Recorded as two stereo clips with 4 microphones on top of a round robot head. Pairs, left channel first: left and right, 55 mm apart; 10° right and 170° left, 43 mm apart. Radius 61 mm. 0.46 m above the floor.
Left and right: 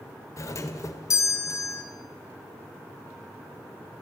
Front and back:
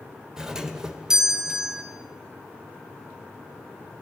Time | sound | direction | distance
0.4 | a doorbell | 95° left | 2.5 m